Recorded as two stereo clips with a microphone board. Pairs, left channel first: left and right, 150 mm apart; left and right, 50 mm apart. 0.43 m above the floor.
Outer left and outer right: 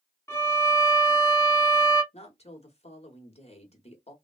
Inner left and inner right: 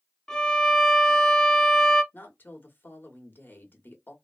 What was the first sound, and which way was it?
A violin, 15° left (ahead or behind).